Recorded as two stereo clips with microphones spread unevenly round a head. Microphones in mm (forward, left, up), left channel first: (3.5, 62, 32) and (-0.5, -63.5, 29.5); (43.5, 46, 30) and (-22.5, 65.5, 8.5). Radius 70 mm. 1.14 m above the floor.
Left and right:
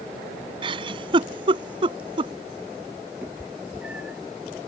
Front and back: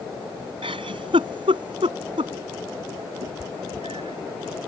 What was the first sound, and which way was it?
A giggle, 145° right.